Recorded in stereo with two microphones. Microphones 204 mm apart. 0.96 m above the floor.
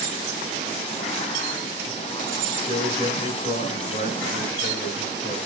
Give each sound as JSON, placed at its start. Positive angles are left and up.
{"t": 2.6, "sound": "a man speaking", "side_deg": 35, "distance_m": 4.5}